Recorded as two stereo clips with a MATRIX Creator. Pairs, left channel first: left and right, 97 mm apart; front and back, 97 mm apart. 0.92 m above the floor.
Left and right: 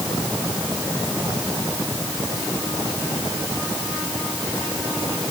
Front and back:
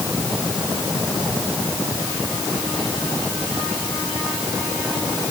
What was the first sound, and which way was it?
Only background noise.